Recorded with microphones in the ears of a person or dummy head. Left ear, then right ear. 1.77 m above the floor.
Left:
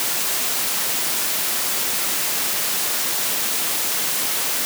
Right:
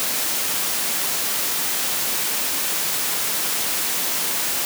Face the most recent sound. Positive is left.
No sound to turn to.